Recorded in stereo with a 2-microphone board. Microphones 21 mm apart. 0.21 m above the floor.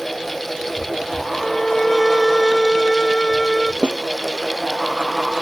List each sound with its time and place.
1.3 s a violin: 20° left (ahead or behind)
3.8 s a snare drum: 50° left (ahead or behind)